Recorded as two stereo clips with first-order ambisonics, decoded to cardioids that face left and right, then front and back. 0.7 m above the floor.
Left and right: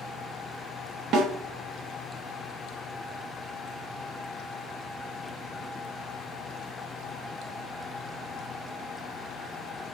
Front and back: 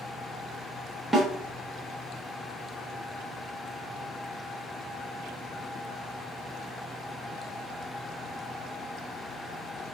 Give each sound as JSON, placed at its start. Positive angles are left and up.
{"t": 1.1, "sound": "a snare drum", "azimuth_deg": -90, "distance_m": 1.0}